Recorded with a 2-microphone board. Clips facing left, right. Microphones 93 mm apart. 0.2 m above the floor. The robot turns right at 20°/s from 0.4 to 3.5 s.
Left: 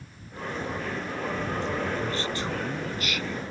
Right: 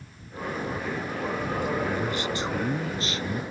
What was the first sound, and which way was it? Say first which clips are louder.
A man speaking: right 2 dB; 170° right.